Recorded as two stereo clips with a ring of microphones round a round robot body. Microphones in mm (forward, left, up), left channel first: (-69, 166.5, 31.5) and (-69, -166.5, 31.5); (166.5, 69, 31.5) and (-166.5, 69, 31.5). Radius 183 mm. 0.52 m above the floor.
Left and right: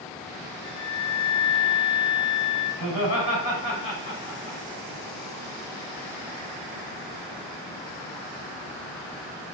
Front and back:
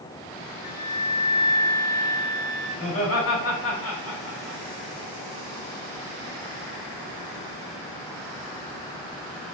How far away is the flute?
About 1.5 m.